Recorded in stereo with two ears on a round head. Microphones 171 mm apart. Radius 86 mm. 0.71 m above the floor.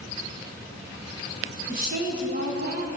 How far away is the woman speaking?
About 5.5 m.